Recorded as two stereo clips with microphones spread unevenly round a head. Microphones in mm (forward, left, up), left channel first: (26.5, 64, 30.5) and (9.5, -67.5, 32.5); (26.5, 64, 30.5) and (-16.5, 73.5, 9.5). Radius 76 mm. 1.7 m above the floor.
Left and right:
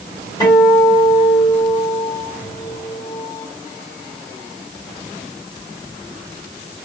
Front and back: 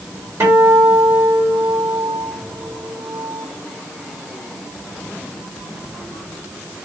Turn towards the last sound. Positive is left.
turn(degrees=140)